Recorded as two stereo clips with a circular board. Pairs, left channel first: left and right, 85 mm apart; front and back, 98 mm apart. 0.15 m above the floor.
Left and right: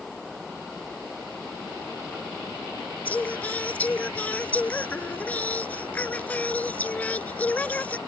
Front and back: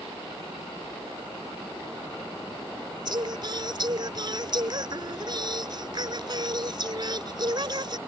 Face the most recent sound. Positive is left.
turn(degrees=155)